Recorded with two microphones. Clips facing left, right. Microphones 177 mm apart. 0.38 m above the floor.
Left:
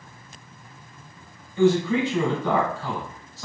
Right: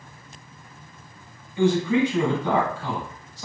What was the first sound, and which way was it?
A man speaking, 15° right (ahead or behind).